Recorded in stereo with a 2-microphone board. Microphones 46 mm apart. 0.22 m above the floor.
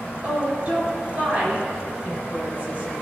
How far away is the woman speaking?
About 4 m.